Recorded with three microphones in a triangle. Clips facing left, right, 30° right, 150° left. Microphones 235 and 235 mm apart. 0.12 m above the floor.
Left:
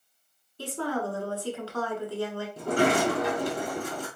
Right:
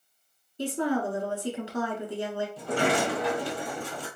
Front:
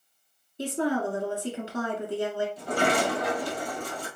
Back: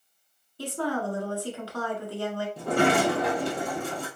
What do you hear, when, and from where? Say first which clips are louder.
0.6 s a woman speaking: right 4 dB, front 3 dB; 55° right, 1.2 m
2.6 s a sliding door: left 3 dB, back 5 dB; 130° left, 1.2 m